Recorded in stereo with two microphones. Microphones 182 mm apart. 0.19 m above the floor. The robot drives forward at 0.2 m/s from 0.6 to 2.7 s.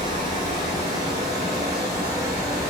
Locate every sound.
0.0 s running water: 20° right (ahead or behind), 1.2 m; by 2.7 s 15° right (ahead or behind), 1.6 m